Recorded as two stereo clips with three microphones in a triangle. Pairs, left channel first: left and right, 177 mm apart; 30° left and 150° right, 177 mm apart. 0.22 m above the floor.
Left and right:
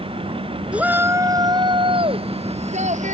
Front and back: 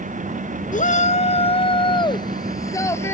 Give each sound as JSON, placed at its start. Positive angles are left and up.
{"t": 0.7, "sound": "a shout", "azimuth_deg": -5}